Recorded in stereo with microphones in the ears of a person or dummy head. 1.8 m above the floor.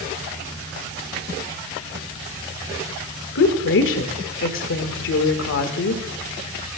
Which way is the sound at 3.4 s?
70° left (ahead or behind).